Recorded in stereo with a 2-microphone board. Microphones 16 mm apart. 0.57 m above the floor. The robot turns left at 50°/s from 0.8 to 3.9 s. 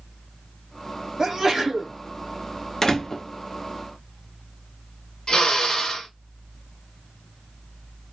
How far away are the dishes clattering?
No dishes clattering in this recording.